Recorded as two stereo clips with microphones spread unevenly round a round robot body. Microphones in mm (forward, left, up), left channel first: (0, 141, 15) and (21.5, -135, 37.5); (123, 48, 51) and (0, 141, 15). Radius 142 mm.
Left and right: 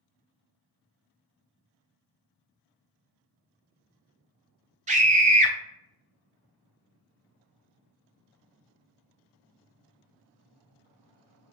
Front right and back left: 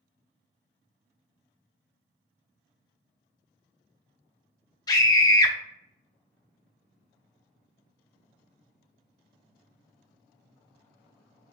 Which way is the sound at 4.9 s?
90° right.